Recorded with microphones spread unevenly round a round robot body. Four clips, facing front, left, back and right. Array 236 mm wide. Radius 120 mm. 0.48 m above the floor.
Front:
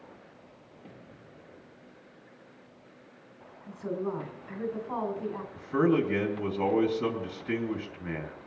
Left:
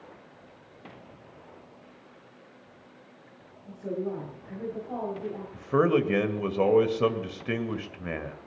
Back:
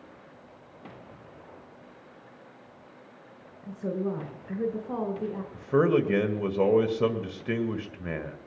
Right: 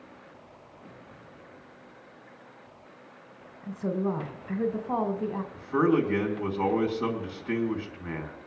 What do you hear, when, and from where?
3.6 s a woman speaking: 115° right, 1.6 m
5.5 s a man speaking: 140° left, 1.8 m